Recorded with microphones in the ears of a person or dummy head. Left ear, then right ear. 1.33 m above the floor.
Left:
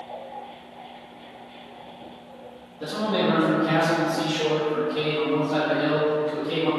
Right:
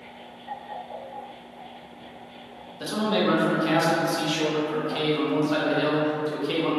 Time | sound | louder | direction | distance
2.8 | a man speaking | even | 50° right (ahead or behind) | 1.0 m